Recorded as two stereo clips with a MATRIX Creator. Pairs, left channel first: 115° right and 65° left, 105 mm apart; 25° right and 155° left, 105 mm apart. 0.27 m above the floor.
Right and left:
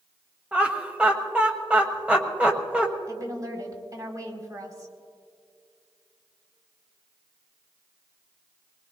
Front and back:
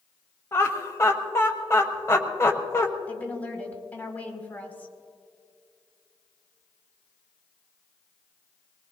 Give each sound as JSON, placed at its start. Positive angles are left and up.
{"t": 0.5, "sound": "laughter", "azimuth_deg": 0, "distance_m": 1.3}
{"t": 3.1, "sound": "a woman speaking", "azimuth_deg": 40, "distance_m": 2.0}